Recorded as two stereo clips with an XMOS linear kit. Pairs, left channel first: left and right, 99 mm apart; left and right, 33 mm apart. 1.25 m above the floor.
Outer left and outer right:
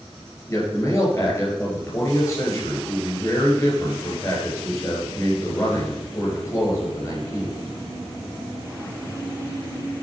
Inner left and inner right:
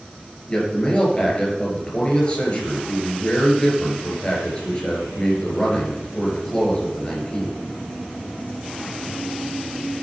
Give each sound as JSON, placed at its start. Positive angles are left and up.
{"t": 0.5, "sound": "a man speaking", "side_deg": 25, "distance_m": 5.5}